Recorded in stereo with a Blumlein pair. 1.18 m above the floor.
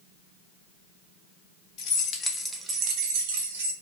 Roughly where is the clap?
I don't hear a clap.